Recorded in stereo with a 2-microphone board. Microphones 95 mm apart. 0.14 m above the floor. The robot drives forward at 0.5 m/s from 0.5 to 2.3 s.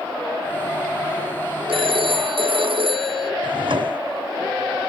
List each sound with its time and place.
1.7 s a phone ringing: 75° right (ahead or behind)
3.4 s a drawer: 65° right (ahead or behind)